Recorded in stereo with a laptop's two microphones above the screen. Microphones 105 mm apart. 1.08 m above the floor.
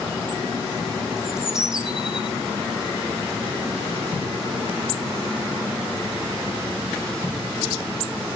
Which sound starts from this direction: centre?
A bird, at 1.2 s.